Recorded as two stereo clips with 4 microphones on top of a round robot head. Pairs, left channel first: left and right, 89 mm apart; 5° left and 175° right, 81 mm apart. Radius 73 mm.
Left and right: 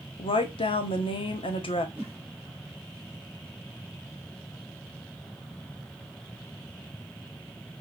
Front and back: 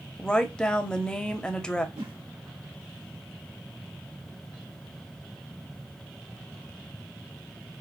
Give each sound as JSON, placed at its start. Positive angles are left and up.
{"t": 0.2, "sound": "a woman speaking", "azimuth_deg": 85, "distance_m": 1.1}
{"t": 1.9, "sound": "a whoosh", "azimuth_deg": -165, "distance_m": 1.5}